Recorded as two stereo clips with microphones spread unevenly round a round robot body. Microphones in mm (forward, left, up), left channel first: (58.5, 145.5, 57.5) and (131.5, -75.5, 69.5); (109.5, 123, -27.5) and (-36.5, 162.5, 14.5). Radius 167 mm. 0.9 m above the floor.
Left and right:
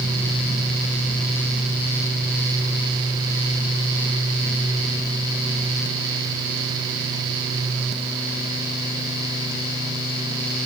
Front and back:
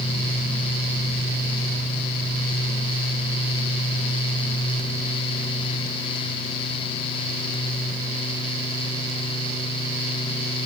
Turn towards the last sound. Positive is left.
No sound to turn to.